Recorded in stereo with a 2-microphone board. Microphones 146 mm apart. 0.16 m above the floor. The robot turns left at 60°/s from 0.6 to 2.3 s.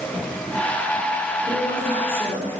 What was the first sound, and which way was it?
A woman speaking, 145° left.